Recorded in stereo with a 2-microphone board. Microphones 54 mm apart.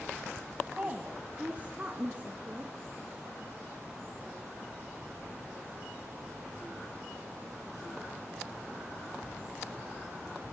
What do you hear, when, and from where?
0.8 s a woman speaking: 25° right (ahead or behind), 2.5 m